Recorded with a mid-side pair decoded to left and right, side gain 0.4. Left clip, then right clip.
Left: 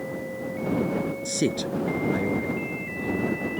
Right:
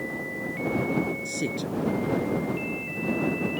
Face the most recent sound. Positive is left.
turn(degrees=45)